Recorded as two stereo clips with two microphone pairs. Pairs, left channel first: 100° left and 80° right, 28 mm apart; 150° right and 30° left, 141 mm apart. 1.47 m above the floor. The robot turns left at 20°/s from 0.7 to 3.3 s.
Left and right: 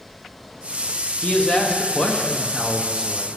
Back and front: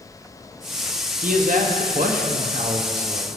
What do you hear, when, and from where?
1.2 s a man speaking: 45° left, 1.2 m; by 3.3 s 5° left, 1.2 m